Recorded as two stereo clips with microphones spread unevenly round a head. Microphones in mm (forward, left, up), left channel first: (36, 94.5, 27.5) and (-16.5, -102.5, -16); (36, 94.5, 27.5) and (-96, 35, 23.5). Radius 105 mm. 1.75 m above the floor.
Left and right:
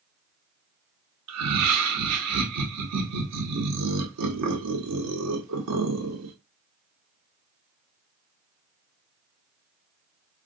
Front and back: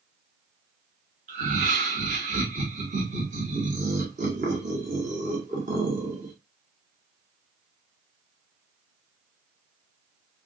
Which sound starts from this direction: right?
Laughter, at 1.3 s.